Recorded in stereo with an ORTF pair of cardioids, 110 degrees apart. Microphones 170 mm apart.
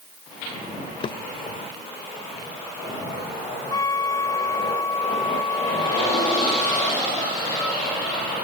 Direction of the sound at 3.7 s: 20° left.